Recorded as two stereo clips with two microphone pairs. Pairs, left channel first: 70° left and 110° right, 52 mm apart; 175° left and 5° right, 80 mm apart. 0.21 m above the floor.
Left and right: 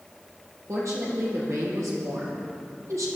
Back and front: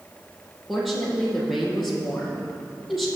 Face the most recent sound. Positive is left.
turn(degrees=-95)